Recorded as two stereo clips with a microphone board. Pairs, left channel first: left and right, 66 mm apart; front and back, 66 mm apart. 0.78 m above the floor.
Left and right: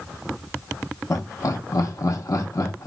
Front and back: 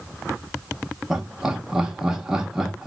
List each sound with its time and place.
1.1 s laughter: 100° left, 0.9 m